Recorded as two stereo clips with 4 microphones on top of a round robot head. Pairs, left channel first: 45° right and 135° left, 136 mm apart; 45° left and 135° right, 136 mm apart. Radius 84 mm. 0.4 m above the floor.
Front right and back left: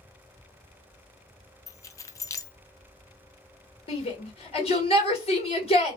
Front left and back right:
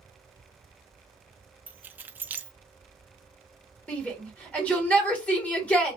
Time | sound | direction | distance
1.7 | keys jangling | 75° right | 0.5 m
3.9 | a shout | 30° right | 2.0 m